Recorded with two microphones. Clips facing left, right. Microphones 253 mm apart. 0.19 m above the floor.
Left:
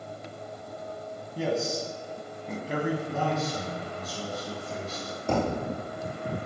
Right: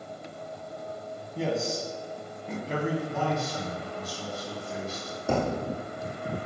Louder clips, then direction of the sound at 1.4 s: Left 1 dB; centre (ahead or behind).